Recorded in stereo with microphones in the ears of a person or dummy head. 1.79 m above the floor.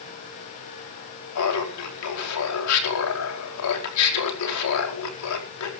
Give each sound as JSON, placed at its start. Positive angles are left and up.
{"t": 1.4, "sound": "laughter", "side_deg": 85, "distance_m": 5.0}